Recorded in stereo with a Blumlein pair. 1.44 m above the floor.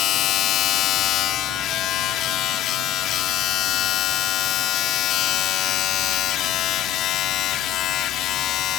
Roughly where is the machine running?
Ahead left.